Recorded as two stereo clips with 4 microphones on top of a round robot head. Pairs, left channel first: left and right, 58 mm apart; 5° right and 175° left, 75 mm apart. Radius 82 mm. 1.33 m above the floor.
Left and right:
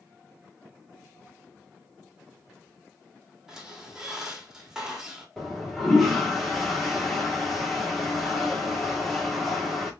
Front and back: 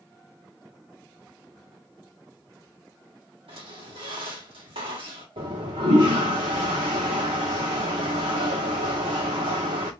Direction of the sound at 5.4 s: 175° left.